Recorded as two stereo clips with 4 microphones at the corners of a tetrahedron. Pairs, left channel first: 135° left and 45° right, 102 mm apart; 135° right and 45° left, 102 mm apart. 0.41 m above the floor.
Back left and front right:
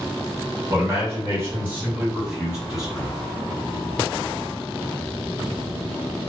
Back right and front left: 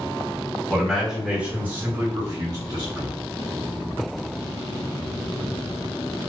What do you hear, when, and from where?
0.7 s a man speaking: 55° right, 1.6 m; by 3.1 s 45° left, 1.9 m